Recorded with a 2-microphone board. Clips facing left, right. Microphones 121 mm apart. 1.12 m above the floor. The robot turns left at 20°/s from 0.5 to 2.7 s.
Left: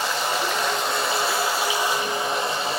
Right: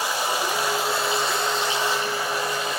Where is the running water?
165° right, 3.5 m; by 2.8 s 150° left, 3.5 m.